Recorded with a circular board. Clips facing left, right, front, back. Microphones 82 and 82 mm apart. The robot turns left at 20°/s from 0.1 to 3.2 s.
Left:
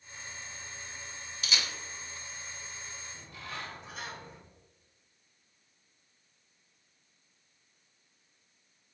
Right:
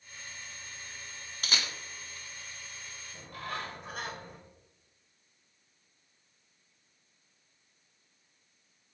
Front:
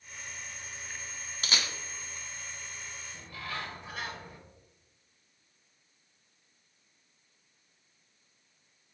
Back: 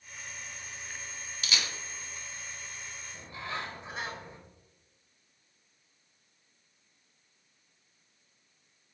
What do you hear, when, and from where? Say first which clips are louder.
1.4 s a camera shutter: right 1 dB, front 1 dB; 50° right, 1.4 m; by 1.7 s 55° right, 1.4 m
3.1 s a bird: right 6 dB, back 2 dB; 115° right, 1.3 m